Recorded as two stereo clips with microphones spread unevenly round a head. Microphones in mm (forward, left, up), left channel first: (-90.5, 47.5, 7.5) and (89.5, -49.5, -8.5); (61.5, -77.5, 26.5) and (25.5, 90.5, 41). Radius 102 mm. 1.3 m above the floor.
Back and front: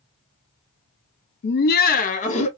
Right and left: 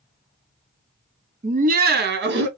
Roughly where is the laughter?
Behind left.